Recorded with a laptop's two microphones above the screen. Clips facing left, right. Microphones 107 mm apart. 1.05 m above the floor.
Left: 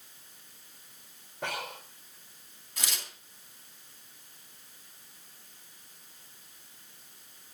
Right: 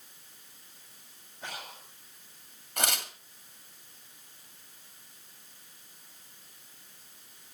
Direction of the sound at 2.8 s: 60° right (ahead or behind).